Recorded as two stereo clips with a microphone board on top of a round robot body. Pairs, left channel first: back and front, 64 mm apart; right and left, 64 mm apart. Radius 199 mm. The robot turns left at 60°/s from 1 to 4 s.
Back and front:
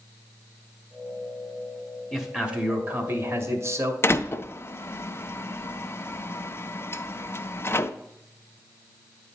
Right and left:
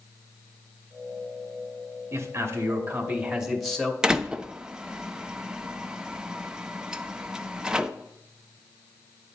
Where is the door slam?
160° left, 0.7 m.